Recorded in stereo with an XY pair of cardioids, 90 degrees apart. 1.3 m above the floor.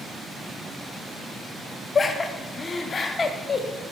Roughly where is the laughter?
Ahead left.